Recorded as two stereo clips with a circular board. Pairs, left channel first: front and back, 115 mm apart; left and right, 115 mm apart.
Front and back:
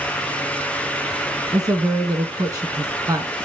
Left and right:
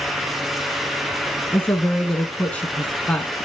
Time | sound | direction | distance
1.5 | a woman speaking | 165° left | 1.4 m